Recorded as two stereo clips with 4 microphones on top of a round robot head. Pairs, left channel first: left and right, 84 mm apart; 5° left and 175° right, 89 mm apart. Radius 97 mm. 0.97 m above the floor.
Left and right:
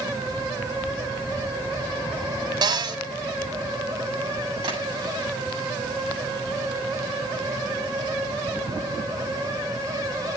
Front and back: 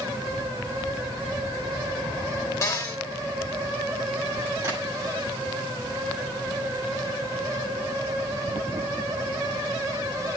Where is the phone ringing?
I don't hear a phone ringing.